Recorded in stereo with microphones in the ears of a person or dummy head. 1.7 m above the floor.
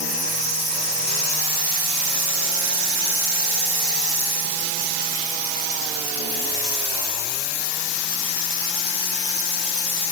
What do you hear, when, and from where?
Only background noise.